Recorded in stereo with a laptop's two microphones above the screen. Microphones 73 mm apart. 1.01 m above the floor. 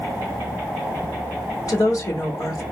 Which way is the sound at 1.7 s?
50° left (ahead or behind).